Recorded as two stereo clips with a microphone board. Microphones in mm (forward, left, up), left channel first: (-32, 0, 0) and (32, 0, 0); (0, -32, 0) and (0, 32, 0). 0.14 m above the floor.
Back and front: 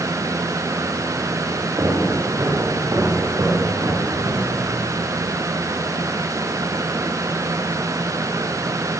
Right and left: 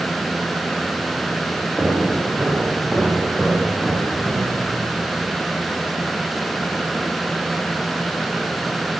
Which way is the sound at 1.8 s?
5° left.